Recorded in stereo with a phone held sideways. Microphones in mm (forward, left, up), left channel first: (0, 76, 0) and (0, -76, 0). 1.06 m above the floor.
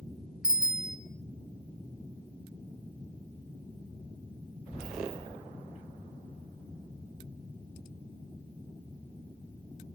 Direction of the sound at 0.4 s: 5° right (ahead or behind).